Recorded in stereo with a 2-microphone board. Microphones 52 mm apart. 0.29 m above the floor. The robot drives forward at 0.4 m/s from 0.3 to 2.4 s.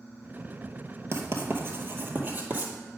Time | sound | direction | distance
1.1 | writing | 55° right (ahead or behind) | 1.2 m